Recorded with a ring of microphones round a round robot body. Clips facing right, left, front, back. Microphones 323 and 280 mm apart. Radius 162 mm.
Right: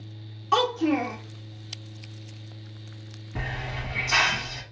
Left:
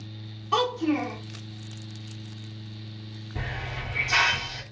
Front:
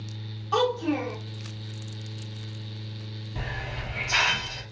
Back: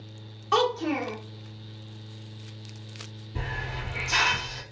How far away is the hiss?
About 1.5 m.